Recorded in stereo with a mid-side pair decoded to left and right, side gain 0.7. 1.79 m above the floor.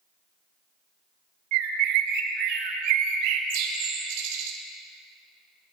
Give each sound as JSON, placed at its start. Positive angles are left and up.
{"t": 1.5, "sound": "a bird", "azimuth_deg": -60, "distance_m": 1.0}